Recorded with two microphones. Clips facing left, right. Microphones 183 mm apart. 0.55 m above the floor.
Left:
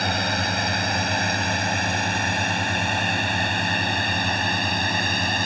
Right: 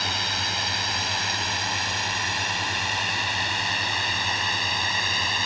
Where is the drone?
55° left (ahead or behind).